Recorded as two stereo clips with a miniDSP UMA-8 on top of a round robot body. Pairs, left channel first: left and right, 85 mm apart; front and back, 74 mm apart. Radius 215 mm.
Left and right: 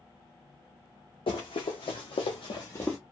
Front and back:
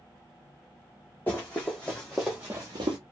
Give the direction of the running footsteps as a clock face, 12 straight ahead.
10 o'clock.